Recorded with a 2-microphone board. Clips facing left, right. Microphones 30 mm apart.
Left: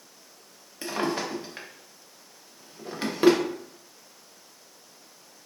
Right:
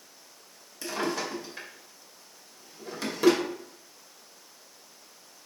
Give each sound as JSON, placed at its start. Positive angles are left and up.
{"t": 0.8, "sound": "a drawer", "side_deg": 35, "distance_m": 0.6}